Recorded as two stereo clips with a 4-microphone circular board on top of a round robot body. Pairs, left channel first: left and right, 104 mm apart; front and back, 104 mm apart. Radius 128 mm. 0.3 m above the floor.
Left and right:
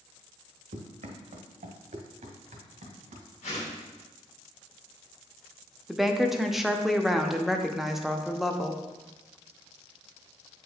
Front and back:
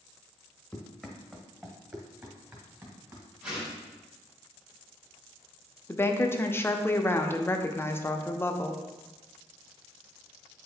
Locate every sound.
0.7 s running footsteps: 80° right, 0.9 m; by 3.3 s 120° right, 2.5 m
3.4 s a whoosh: 105° left, 3 m
5.9 s a woman speaking: 5° right, 0.8 m